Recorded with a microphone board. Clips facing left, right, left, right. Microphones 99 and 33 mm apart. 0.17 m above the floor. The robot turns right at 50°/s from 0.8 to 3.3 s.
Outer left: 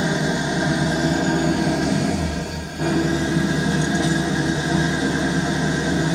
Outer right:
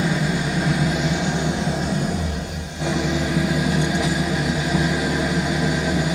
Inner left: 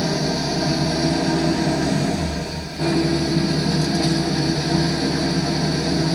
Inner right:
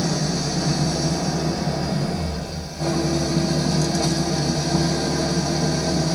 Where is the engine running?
25° left, 0.8 m; by 6.2 s 150° left, 0.8 m.